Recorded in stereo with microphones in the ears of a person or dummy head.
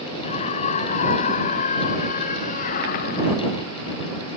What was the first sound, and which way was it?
A scream, 35° left (ahead or behind).